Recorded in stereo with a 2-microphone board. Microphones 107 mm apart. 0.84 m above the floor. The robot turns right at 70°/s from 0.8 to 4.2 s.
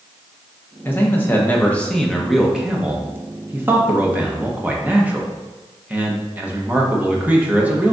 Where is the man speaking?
20° left (ahead or behind), 0.7 m; by 7.9 s 15° right (ahead or behind), 0.7 m.